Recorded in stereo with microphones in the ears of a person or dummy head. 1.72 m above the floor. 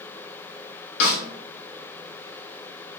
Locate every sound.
1.0 s a snare drum: 45° left (ahead or behind), 0.8 m